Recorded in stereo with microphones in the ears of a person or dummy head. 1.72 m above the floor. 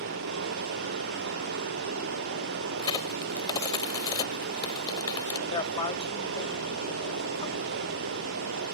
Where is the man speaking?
25° left (ahead or behind).